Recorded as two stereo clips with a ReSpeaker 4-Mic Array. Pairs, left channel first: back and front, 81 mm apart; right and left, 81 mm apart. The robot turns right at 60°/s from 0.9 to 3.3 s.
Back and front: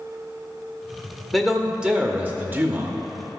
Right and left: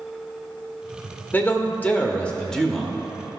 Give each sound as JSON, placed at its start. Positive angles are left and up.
{"t": 1.3, "sound": "a man speaking", "azimuth_deg": -95, "distance_m": 0.8}